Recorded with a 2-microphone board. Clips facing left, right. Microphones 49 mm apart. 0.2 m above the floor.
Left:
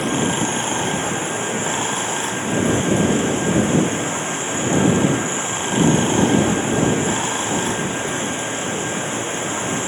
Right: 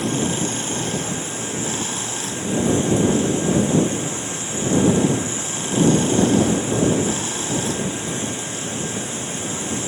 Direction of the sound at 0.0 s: 30° left (ahead or behind).